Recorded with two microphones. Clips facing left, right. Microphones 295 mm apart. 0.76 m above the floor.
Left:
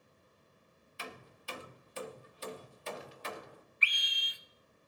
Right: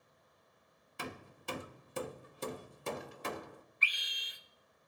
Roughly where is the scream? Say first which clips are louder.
Left 2 dB; right.